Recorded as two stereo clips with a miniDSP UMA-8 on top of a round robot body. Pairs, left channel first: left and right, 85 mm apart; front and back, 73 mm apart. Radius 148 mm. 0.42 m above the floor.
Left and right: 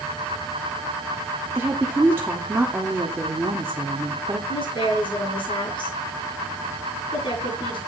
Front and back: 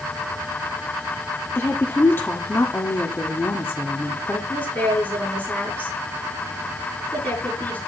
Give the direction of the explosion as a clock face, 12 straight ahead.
I don't hear an explosion.